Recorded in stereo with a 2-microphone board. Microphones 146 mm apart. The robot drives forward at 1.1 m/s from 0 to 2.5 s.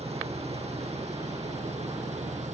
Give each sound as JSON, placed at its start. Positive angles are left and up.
{"t": 0.0, "sound": "an engine running", "side_deg": -45}